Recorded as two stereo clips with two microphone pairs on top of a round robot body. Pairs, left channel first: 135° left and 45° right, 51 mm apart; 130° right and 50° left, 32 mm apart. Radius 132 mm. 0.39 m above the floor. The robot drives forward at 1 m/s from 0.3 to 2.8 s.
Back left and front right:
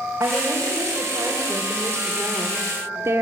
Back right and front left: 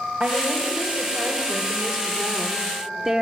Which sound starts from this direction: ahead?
A woman speaking, at 0.2 s.